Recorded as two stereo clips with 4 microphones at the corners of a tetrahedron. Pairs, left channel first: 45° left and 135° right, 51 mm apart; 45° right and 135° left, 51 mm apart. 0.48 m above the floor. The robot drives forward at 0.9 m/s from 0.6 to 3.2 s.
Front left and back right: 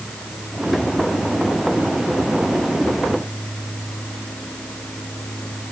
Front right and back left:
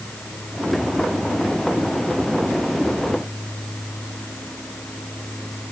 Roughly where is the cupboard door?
No cupboard door in this recording.